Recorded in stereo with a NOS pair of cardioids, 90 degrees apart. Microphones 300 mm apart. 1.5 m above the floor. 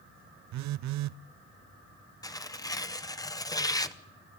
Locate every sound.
0.5 s a phone buzzing: 65° right, 0.6 m
2.2 s tearing paper: 10° left, 1.0 m